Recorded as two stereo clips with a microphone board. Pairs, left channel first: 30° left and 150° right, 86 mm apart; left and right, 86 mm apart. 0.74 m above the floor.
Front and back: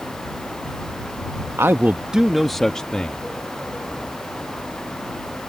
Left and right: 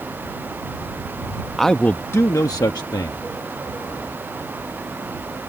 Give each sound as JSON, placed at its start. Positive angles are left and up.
{"t": 1.6, "sound": "a man speaking", "azimuth_deg": 175}